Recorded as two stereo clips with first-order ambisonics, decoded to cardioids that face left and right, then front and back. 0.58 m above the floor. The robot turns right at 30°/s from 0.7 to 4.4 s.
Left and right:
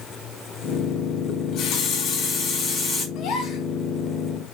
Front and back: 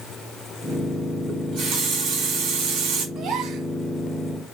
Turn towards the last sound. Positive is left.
turn(degrees=170)